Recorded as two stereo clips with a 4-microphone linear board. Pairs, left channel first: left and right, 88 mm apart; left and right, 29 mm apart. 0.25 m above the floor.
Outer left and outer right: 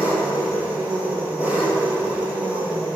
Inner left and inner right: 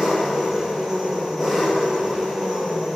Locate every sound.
0.0 s an engine running: 20° right (ahead or behind), 1.9 m